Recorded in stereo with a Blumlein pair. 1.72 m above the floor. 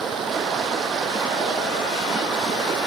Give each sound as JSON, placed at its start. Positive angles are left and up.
{"t": 0.0, "sound": "running water", "azimuth_deg": -20}